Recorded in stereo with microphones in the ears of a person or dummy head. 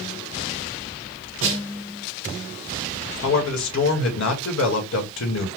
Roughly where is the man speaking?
Left.